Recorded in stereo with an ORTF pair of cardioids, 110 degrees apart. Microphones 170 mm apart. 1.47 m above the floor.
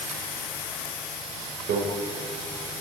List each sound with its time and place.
1.7 s a microwave: 60° right, 7 m